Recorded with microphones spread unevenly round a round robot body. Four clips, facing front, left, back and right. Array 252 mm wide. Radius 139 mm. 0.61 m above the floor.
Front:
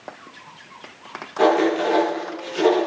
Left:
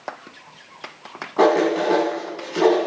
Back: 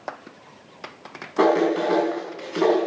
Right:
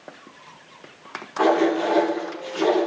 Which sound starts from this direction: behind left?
Writing, at 1.4 s.